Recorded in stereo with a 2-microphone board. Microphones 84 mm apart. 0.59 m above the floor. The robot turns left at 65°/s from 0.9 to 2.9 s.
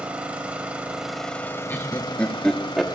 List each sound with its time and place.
0.0 s an engine running: 165° right, 1.1 m; by 3.0 s 65° left, 1.1 m
1.7 s laughter: 25° left (ahead or behind), 0.9 m; by 2.9 s centre (ahead or behind), 0.9 m